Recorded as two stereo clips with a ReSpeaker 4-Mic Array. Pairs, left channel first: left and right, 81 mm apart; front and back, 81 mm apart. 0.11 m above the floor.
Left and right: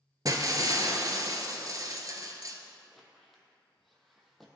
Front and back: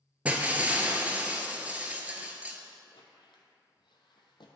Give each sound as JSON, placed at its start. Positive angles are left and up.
{"t": 0.2, "sound": "breaking glass", "azimuth_deg": -110, "distance_m": 0.7}
{"t": 2.9, "sound": "a squeak", "azimuth_deg": 0, "distance_m": 0.9}